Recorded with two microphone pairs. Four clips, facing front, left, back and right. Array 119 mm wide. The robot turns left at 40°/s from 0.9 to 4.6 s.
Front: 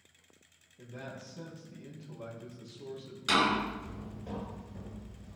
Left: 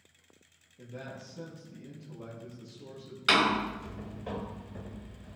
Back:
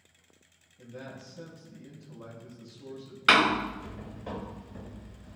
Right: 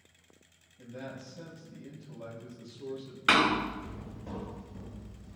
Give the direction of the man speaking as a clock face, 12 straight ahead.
10 o'clock.